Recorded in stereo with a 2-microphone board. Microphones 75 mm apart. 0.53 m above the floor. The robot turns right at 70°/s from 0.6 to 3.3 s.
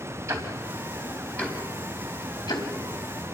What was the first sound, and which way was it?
Ticking, 40° right (ahead or behind).